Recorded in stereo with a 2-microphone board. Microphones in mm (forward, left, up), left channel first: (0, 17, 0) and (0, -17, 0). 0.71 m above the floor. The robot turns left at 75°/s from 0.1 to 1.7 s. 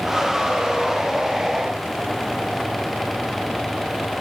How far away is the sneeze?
I don't hear a sneeze.